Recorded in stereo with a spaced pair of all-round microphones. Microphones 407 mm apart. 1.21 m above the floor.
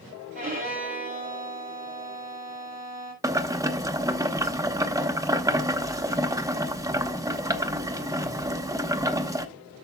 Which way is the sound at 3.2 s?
10° right (ahead or behind).